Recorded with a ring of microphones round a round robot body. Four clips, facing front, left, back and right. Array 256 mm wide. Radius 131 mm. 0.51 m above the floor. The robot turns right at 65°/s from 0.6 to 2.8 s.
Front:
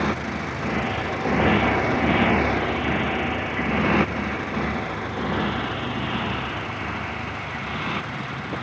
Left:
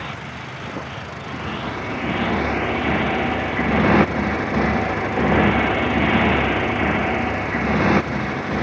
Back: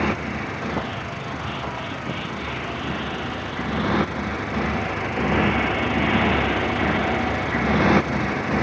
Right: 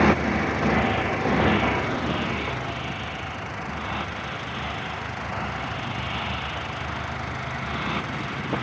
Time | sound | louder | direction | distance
0.0 | a motorcycle | right 12 dB, back 1 dB | 95° right | ?